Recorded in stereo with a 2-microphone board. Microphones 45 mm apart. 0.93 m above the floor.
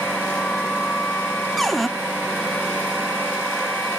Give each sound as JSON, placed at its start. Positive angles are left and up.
{"t": 1.6, "sound": "a cupboard door", "side_deg": 5, "distance_m": 0.7}